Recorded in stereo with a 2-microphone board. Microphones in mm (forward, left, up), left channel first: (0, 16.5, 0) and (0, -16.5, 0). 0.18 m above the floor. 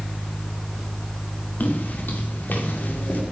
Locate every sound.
1.6 s footsteps: 65° left (ahead or behind), 4.5 m; by 3.2 s 70° left (ahead or behind), 3.5 m